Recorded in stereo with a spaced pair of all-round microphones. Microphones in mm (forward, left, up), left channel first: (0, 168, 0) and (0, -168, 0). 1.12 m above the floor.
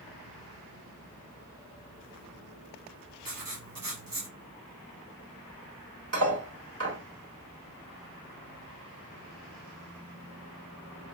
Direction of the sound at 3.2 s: 80° right.